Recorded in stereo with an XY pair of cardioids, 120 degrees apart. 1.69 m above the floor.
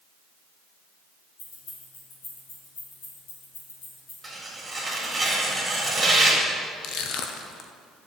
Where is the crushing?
65° left, 1.1 m.